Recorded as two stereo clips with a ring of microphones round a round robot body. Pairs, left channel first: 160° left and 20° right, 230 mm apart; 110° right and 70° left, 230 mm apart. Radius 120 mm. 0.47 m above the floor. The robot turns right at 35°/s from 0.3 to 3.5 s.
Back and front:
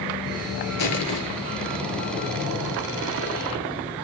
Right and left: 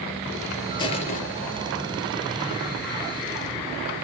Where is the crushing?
175° left, 2 m; by 1.2 s 170° right, 2 m.